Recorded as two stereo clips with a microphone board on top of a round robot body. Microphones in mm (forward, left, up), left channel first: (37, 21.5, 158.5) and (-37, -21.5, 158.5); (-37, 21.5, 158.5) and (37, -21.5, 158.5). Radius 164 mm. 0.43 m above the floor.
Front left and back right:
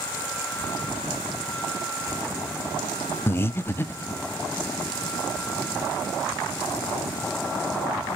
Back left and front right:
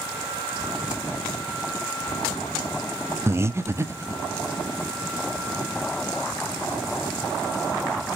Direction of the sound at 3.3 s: 5° right.